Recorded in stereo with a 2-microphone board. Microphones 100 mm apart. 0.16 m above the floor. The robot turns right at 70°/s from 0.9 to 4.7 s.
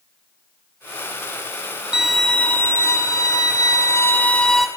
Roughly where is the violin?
Ahead.